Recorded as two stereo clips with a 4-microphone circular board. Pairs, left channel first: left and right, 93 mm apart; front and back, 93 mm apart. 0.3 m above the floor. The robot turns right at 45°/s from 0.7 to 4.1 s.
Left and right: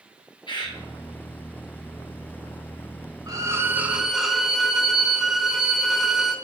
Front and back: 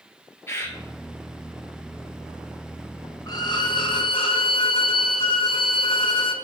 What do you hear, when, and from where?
0.5 s a bird: 60° left, 1.5 m; by 0.8 s 65° left, 1.5 m
3.3 s a violin: 40° right, 0.7 m; by 6.3 s 5° right, 0.7 m